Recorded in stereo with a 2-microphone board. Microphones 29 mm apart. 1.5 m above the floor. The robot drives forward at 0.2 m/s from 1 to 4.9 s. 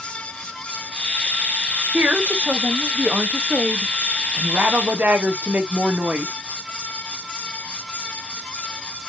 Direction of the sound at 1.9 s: 60° right (ahead or behind).